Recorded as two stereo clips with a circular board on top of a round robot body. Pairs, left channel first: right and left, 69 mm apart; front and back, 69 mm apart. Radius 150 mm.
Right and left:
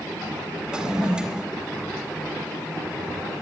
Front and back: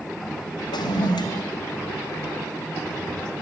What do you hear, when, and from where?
0.7 s a toilet flushing: 10° left, 2 m